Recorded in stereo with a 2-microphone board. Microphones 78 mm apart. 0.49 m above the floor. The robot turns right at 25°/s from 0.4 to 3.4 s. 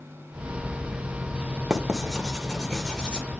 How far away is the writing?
About 1.3 m.